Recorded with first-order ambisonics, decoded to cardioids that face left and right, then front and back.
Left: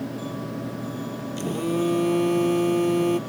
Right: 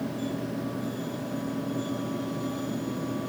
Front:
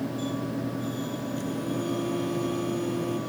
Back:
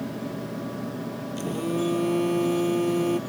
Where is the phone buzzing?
115° left.